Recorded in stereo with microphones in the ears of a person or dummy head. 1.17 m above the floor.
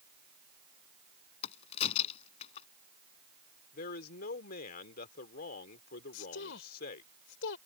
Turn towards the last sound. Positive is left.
turn(degrees=75)  # may be behind; listen again after turning